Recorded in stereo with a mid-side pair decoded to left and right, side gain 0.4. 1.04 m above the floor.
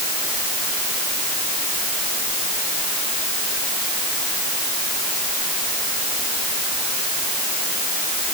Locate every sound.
Only background noise.